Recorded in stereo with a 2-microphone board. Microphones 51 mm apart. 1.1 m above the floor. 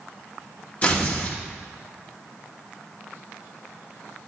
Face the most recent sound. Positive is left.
turn(degrees=30)  # may be behind; listen again after turning